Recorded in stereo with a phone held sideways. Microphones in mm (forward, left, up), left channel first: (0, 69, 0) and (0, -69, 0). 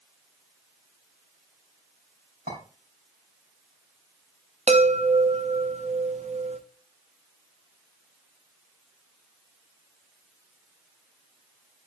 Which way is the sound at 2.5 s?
65° right (ahead or behind).